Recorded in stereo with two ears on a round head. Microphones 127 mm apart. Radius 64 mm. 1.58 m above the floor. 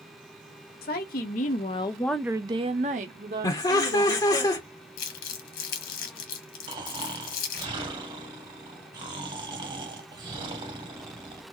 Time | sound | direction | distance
0.8 | a woman speaking | 70° left (ahead or behind) | 1.2 m
3.4 | laughter | 25° left (ahead or behind) | 0.6 m
5.0 | crumpling | 75° left (ahead or behind) | 1.3 m
6.7 | snoring | 35° right (ahead or behind) | 1.1 m